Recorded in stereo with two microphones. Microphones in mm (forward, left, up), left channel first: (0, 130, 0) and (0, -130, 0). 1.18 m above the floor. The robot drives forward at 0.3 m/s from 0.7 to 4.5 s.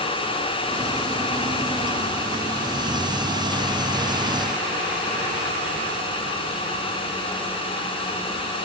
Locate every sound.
Only background noise.